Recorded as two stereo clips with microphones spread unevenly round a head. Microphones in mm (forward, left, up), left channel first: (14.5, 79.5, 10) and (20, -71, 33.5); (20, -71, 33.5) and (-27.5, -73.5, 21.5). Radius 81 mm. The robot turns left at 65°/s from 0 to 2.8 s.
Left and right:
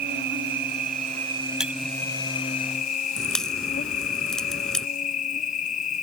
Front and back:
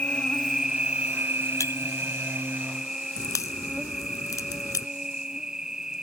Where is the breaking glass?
5° right; by 1.7 s 10° right.